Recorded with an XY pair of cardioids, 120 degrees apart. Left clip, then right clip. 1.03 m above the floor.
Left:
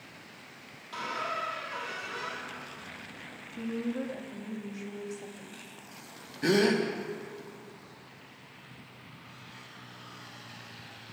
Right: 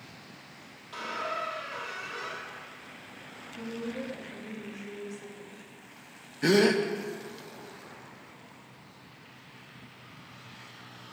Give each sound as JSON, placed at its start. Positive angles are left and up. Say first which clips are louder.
{"t": 0.9, "sound": "a squeak", "louder": "even", "azimuth_deg": 10, "distance_m": 1.6}
{"t": 3.5, "sound": "a woman speaking", "louder": "left 2 dB", "azimuth_deg": 30, "distance_m": 1.7}
{"t": 6.4, "sound": "a gasp", "louder": "right 2 dB", "azimuth_deg": -15, "distance_m": 0.9}